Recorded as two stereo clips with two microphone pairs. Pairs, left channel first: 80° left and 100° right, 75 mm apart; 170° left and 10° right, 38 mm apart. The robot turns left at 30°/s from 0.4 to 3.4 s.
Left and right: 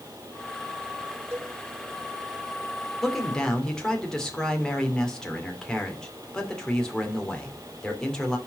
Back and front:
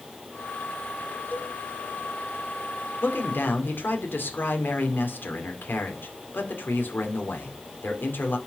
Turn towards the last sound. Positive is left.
turn(degrees=160)